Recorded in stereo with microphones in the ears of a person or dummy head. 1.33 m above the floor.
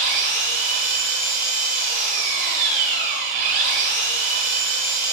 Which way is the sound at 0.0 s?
40° right (ahead or behind).